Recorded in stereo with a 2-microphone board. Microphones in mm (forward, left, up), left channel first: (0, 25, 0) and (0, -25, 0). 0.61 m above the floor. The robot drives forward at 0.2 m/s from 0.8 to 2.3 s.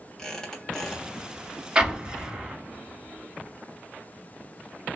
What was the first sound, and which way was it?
A squeak, 15° left (ahead or behind).